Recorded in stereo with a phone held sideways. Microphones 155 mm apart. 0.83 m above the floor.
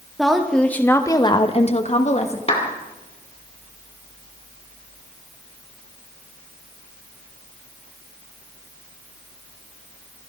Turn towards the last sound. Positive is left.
turn(degrees=40)  # may be behind; listen again after turning